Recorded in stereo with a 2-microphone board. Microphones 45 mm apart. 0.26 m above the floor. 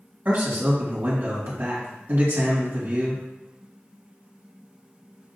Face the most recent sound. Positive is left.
turn(degrees=-50)  # may be behind; listen again after turning